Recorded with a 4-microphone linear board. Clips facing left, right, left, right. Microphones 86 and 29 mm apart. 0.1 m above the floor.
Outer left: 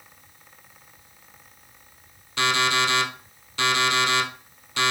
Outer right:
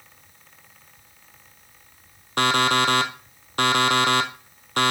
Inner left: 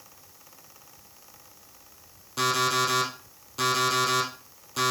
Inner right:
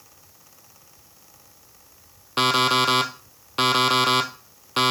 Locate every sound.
2.4 s an alarm clock: 50° right (ahead or behind), 1.2 m